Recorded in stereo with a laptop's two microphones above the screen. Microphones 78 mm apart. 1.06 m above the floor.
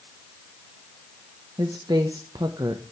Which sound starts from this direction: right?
A woman speaking, at 1.6 s.